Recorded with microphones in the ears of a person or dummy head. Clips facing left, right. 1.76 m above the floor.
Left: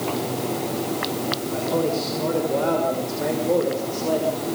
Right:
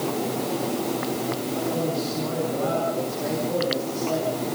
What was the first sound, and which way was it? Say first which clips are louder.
A man speaking: left 5 dB; 80° left.